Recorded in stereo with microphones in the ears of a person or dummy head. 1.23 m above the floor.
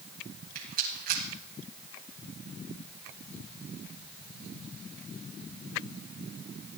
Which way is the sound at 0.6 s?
45° right (ahead or behind).